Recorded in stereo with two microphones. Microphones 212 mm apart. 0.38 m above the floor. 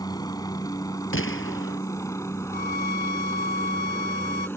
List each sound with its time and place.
0.0 s a helicopter: 20° left (ahead or behind); by 4.6 s 10° left (ahead or behind)
1.1 s a gunshot: 70° left (ahead or behind)
2.5 s a violin: 45° left (ahead or behind)